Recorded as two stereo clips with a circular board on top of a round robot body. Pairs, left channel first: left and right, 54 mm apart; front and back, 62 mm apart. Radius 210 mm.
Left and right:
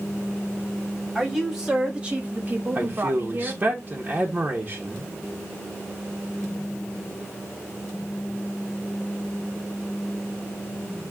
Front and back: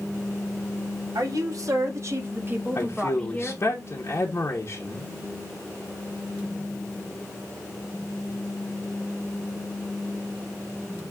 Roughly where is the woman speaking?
Behind.